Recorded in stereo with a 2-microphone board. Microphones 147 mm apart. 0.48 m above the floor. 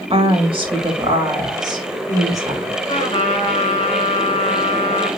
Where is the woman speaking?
40° right (ahead or behind), 2.5 m; by 2.8 s 20° right (ahead or behind), 3.5 m.